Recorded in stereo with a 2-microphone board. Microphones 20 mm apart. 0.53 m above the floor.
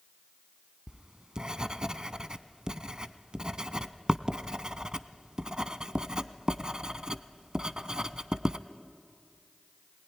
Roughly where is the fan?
No fan in this recording.